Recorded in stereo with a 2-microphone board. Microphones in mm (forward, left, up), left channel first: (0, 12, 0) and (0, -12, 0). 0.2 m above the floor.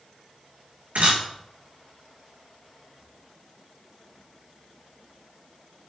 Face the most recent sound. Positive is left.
turn(degrees=-75)  # may be behind; listen again after turning